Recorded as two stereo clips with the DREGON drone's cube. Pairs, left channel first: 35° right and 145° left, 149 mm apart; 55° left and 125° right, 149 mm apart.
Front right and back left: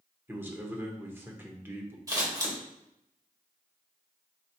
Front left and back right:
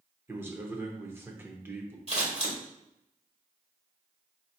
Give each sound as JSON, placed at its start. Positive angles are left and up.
{"t": 0.3, "sound": "a man speaking", "azimuth_deg": -170, "distance_m": 0.7}
{"t": 2.1, "sound": "scissors", "azimuth_deg": -155, "distance_m": 1.4}